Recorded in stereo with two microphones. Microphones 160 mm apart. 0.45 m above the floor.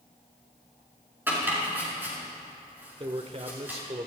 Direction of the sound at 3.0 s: 40° right (ahead or behind).